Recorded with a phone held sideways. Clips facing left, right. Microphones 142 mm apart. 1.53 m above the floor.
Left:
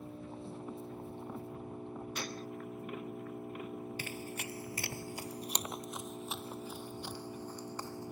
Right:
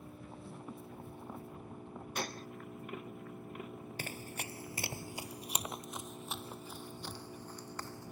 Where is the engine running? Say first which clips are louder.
Left 5 dB; 25° left (ahead or behind).